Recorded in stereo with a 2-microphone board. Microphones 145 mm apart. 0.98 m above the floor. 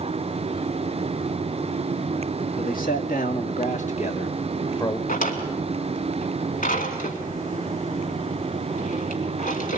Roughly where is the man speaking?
Left.